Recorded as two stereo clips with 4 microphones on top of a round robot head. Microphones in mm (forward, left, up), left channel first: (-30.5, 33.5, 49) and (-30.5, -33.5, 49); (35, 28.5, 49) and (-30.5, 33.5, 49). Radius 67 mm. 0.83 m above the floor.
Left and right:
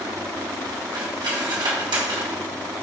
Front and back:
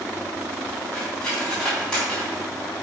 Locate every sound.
0.9 s cutlery clinking: 85° right, 4 m